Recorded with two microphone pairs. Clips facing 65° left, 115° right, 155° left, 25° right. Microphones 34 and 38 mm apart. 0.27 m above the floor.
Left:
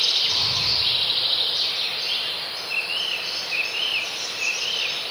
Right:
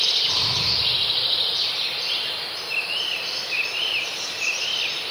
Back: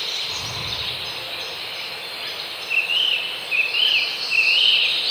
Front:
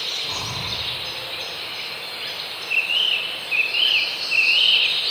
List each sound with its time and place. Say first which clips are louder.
0.2 s breathing: even, even; 5° right, 5 m